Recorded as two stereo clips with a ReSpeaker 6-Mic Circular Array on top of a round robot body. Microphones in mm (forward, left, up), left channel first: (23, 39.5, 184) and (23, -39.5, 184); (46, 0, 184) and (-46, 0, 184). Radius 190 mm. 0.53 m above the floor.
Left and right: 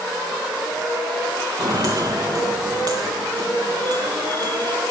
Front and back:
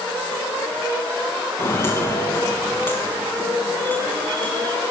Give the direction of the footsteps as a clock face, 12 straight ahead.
2 o'clock.